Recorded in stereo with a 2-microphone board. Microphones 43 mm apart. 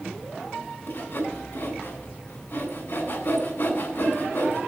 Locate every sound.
0.9 s sawing: 55° left (ahead or behind), 3 m